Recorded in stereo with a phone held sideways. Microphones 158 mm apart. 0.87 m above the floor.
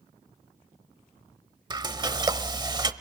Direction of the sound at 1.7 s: 30° right (ahead or behind).